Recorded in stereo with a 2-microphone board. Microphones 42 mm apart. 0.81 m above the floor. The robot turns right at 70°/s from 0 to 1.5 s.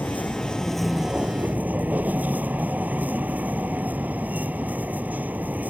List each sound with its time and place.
0.0 s a vehicle: 120° left; by 5.7 s 135° right